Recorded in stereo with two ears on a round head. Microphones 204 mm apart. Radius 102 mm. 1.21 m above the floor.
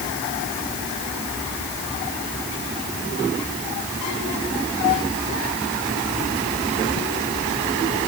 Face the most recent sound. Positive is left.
No sound to turn to.